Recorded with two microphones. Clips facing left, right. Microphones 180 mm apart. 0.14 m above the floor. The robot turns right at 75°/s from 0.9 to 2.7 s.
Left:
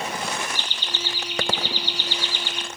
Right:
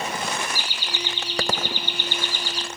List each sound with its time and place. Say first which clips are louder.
0.6 s laughter: right 1 dB; 170° right, 2 m; by 2.7 s 40° right, 2 m